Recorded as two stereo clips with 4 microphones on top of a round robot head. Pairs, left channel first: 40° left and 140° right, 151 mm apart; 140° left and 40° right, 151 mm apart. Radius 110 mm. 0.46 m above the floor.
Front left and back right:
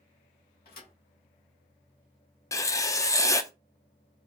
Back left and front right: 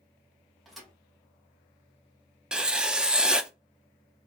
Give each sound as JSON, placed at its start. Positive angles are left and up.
{"t": 0.7, "sound": "a thud", "azimuth_deg": 50, "distance_m": 1.6}
{"t": 2.5, "sound": "writing", "azimuth_deg": 35, "distance_m": 0.6}